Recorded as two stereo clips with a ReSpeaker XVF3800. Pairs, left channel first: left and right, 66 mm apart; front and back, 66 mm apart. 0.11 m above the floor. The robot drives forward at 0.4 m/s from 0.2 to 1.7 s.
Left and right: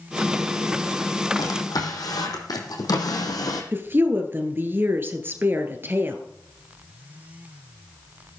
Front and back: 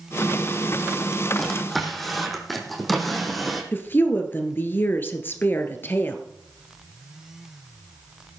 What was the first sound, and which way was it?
A drawer, 85° left.